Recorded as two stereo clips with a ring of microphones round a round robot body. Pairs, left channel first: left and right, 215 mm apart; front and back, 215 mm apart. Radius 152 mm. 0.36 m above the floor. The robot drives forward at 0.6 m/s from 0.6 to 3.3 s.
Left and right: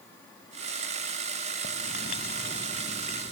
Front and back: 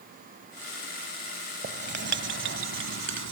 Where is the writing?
140° left; by 3.3 s 160° left.